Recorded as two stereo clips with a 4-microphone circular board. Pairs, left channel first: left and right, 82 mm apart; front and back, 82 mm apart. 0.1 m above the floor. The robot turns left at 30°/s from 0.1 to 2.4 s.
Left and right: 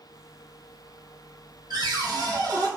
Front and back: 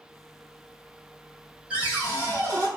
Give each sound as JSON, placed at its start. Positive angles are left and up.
{"t": 1.7, "sound": "a cupboard door", "azimuth_deg": -105, "distance_m": 1.4}